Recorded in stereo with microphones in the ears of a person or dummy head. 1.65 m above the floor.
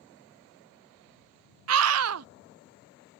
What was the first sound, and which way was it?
A scream, 85° right.